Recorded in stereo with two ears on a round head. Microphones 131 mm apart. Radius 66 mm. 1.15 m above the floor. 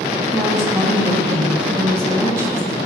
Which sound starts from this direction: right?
A woman speaking, at 0.3 s.